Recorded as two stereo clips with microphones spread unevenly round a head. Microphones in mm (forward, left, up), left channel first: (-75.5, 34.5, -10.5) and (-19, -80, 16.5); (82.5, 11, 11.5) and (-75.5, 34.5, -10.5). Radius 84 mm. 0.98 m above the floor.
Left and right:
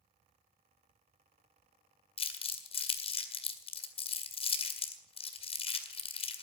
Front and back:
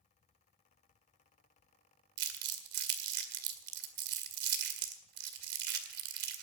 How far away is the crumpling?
About 2.0 m.